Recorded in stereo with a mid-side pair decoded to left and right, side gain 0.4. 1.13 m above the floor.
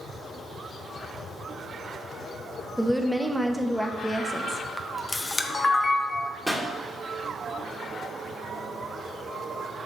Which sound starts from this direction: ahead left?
A camera shutter, at 4.8 s.